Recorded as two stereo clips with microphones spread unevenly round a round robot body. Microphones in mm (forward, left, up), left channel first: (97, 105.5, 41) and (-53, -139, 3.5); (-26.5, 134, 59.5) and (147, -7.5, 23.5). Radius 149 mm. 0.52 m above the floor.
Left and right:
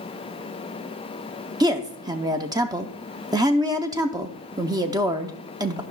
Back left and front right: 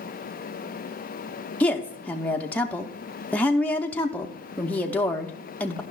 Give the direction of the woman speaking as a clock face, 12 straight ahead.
4 o'clock.